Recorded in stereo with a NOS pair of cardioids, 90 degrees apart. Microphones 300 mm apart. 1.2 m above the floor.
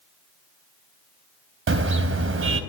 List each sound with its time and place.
1.7 s a car horn: 45° right, 3.5 m